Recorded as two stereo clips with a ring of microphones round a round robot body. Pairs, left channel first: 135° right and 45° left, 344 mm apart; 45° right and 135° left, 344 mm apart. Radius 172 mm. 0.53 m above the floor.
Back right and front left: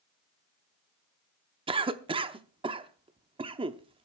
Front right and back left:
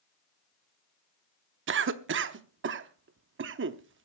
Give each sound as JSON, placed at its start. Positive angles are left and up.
{"t": 1.7, "sound": "a cough", "azimuth_deg": 110, "distance_m": 0.7}